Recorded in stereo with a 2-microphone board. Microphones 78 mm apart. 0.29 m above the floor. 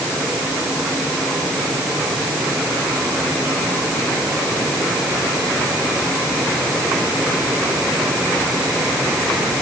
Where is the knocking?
No knocking in this recording.